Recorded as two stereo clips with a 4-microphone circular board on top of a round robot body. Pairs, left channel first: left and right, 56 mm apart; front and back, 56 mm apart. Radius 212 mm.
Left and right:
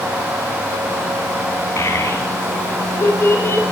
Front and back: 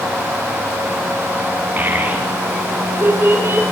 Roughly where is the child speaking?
Behind left.